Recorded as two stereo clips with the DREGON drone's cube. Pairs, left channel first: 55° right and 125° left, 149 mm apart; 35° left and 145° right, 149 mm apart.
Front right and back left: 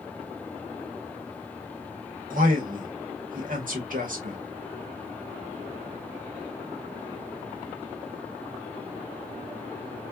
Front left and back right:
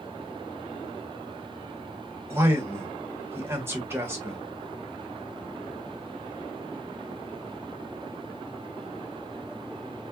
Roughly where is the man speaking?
Behind left.